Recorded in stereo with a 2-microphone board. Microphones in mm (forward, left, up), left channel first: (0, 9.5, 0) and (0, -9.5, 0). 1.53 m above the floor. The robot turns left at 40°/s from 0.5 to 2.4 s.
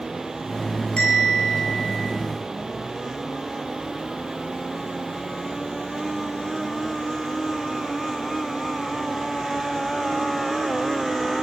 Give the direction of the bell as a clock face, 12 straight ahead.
8 o'clock.